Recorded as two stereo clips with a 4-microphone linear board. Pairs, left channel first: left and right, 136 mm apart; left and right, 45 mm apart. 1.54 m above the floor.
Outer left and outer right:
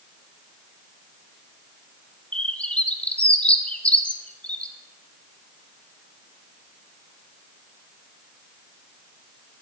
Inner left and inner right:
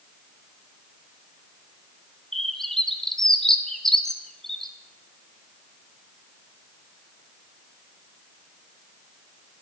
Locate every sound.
2.3 s a bird: 10° left (ahead or behind), 0.9 m